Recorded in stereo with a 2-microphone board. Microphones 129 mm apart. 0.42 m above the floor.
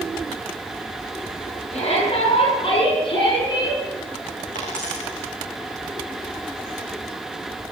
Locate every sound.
1.7 s a shout: 55° left (ahead or behind), 6.5 m; by 3.8 s 30° left (ahead or behind), 6.5 m
4.5 s a dropped coin: 85° left, 6 m